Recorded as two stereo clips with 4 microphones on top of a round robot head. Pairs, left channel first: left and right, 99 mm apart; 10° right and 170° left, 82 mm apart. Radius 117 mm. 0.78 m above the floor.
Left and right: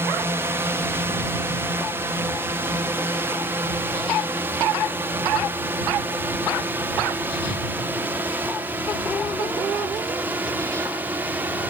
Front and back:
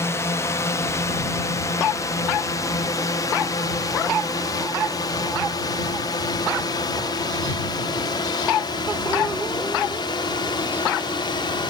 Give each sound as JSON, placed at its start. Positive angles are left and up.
{"t": 0.0, "sound": "a drone", "azimuth_deg": -40}